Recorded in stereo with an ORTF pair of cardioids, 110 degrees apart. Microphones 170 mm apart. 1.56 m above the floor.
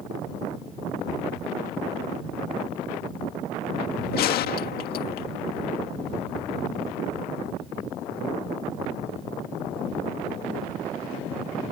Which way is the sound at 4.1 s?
70° left.